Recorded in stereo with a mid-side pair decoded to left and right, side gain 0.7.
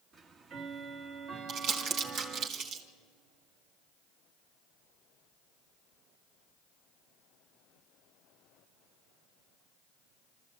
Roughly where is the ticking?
Ahead right.